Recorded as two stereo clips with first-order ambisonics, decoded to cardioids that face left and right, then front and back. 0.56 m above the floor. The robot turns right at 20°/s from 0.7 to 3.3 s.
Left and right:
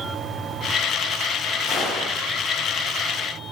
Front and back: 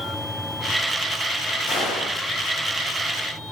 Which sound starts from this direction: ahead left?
A gunshot, at 1.7 s.